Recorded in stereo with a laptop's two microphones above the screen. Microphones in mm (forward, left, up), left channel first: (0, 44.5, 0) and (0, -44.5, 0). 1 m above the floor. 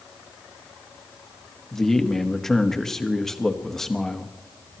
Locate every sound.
1.7 s a man speaking: 5° left (ahead or behind), 0.9 m